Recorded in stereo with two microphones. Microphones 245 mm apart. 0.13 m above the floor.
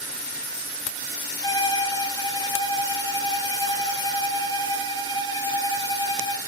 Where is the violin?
20° left (ahead or behind), 0.6 m.